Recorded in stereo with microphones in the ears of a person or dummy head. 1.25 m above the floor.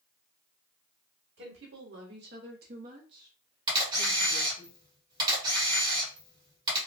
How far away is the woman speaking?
About 1.1 m.